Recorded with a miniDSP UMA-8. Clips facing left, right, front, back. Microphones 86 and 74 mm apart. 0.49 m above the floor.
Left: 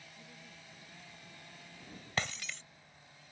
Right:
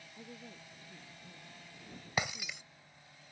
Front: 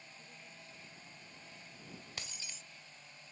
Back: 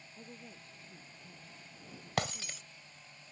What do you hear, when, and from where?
0.1 s a woman speaking: 130° right
2.2 s breaking glass: 170° right